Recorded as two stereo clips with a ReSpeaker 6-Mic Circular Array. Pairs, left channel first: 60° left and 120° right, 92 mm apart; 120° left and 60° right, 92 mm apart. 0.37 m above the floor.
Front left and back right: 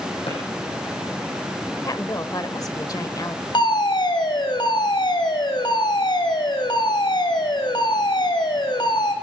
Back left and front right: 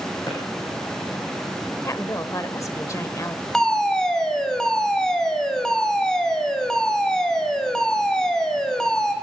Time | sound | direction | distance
0.3 | a drawer | 65° left | 9.5 m
1.9 | a woman speaking | 85° left | 1.1 m
3.5 | a fire alarm | 35° left | 3 m